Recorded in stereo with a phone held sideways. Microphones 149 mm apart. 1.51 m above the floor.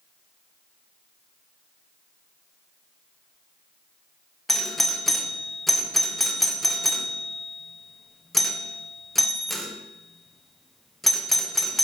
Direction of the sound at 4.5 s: Centre (ahead or behind).